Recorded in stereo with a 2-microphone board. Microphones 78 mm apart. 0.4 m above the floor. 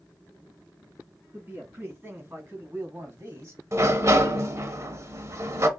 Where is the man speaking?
25° right (ahead or behind), 3.5 m; by 3.6 s 35° right (ahead or behind), 1.5 m.